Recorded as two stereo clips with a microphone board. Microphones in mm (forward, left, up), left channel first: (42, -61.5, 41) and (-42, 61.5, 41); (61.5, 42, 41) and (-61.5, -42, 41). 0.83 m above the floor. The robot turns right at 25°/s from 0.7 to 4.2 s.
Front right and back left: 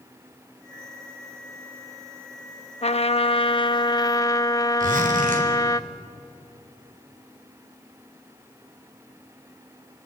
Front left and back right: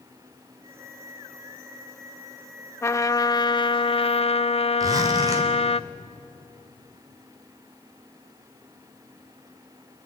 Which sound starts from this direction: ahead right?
A trumpet, at 2.8 s.